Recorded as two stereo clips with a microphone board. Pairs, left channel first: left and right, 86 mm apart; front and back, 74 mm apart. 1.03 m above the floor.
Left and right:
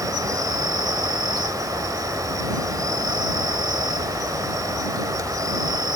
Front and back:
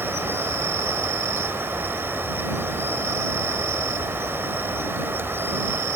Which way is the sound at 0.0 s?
125° right.